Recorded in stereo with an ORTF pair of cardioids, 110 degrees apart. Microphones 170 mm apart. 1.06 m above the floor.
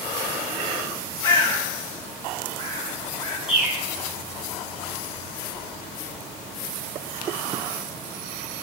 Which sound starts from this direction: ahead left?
A bird, at 1.2 s.